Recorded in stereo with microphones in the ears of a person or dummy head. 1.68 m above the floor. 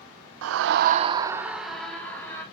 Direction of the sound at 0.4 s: 85° right.